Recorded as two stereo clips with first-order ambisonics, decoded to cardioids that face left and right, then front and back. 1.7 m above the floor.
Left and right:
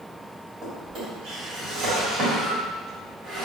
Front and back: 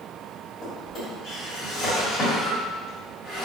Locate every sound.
0.6 s a drawer: 50° right, 1.7 m